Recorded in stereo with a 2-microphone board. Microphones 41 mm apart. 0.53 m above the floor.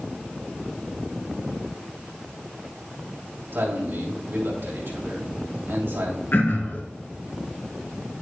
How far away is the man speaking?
About 3 m.